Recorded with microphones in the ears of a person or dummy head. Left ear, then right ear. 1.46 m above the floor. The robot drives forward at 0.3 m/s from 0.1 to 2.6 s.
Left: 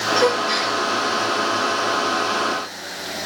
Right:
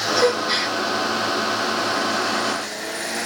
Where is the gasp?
10° left (ahead or behind), 1.2 m.